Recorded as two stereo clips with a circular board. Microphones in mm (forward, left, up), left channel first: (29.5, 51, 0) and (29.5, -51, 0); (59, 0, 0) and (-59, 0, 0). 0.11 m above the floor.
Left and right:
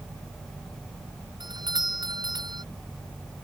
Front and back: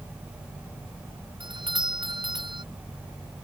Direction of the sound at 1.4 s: 135° right.